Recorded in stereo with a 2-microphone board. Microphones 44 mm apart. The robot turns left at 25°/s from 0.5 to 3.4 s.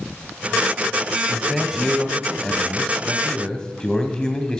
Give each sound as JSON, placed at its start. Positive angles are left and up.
{"t": 1.3, "sound": "a man speaking", "side_deg": -10, "distance_m": 1.2}